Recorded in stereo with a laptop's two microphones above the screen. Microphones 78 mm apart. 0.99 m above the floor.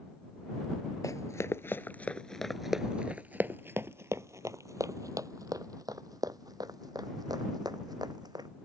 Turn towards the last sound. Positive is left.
turn(degrees=-60)  # may be behind; listen again after turning